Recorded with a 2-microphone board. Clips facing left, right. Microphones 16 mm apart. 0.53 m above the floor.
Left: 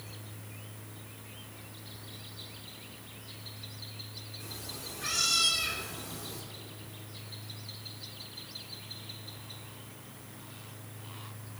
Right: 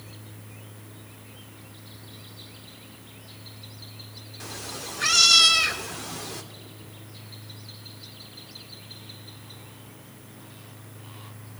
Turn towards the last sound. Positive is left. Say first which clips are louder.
# right 8 dB
turn(degrees=-65)  # may be behind; listen again after turning